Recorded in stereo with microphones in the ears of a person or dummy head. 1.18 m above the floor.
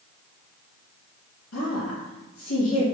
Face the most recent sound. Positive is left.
turn(degrees=65)  # may be behind; listen again after turning